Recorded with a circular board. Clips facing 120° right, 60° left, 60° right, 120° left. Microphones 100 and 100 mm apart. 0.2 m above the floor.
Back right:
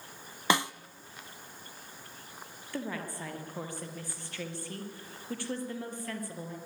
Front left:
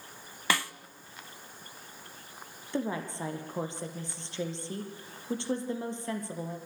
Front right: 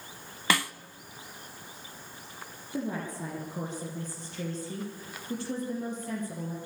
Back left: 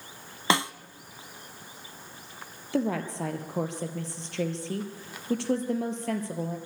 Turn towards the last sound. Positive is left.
turn(degrees=130)